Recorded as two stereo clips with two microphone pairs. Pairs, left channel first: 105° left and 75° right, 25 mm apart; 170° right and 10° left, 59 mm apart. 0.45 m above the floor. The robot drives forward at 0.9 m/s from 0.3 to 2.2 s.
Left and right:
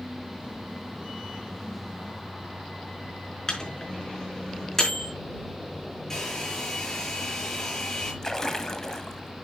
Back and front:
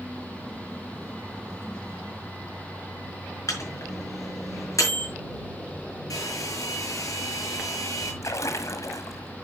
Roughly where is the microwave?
Behind.